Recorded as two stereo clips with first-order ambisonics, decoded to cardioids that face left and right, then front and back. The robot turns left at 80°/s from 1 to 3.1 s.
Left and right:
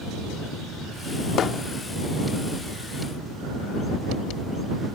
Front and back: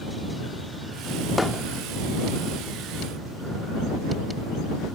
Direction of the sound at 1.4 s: 75° left.